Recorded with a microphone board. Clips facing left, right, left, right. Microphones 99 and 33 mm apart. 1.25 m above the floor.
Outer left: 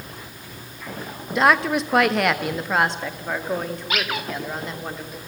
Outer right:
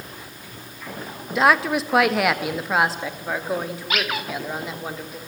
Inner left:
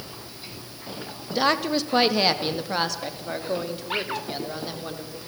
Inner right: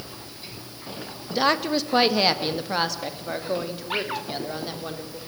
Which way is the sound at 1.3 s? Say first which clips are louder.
Even, even; centre (ahead or behind).